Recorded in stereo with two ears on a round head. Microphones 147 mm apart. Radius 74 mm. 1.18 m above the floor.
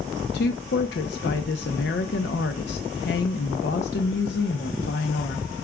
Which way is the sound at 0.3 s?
75° left (ahead or behind).